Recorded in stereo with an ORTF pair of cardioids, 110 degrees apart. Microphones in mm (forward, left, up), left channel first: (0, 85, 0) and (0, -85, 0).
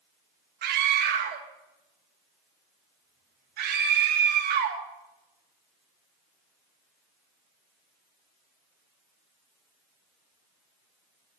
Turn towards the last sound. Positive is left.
turn(degrees=-70)